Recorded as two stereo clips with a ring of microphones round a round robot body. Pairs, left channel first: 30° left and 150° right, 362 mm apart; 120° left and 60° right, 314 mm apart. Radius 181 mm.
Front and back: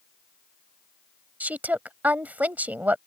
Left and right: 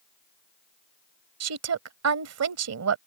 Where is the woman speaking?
65° right.